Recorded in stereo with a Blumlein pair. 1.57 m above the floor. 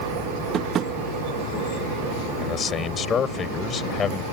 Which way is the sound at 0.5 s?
25° right.